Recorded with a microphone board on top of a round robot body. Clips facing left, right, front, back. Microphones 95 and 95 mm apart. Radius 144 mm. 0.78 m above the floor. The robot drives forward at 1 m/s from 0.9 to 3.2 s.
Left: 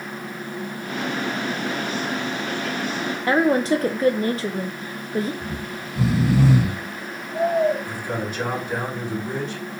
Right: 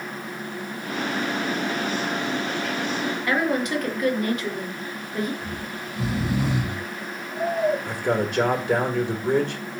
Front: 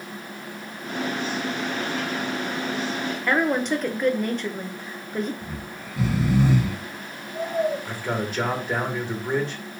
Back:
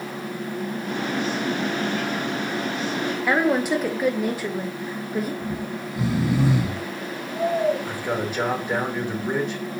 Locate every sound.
3.3 s a woman speaking: 100° left, 0.8 m
5.4 s snoring: 100° left, 1.8 m
7.8 s a man speaking: 100° right, 1.5 m